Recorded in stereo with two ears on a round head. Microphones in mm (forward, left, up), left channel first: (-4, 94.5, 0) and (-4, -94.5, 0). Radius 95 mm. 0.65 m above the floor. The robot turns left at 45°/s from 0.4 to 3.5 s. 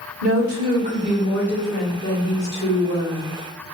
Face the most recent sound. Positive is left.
turn(degrees=100)